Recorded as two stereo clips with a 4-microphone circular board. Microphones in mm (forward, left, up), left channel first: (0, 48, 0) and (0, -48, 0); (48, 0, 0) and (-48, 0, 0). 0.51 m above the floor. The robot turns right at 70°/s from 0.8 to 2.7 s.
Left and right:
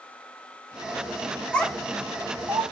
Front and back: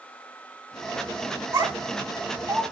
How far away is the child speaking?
About 0.8 m.